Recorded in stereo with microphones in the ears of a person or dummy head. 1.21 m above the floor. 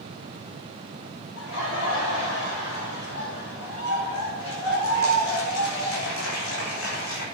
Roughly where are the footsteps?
I don't hear footsteps.